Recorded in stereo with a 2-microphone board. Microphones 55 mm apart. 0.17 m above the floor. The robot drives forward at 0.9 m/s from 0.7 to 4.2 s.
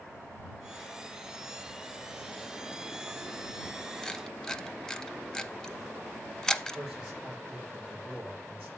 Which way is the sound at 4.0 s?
10° left (ahead or behind).